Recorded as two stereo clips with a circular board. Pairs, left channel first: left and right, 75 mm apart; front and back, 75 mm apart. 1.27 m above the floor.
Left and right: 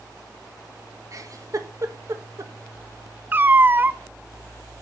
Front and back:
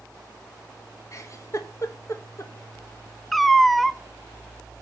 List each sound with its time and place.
1.1 s a giggle: 45° right, 1.4 m
3.3 s a cat meowing: 90° right, 0.5 m